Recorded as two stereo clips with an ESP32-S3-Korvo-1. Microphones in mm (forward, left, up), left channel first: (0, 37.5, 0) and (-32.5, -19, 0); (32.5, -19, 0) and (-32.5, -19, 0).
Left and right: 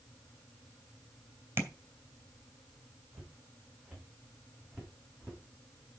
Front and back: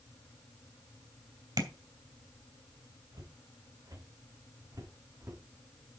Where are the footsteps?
175° left, 4 m; by 5.4 s 145° left, 2.5 m.